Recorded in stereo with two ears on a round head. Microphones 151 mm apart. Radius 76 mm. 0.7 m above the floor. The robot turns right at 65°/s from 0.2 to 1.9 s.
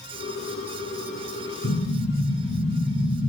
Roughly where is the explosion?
Left.